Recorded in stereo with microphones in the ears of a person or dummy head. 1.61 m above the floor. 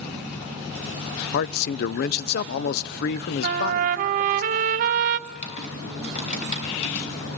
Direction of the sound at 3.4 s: 45° right (ahead or behind).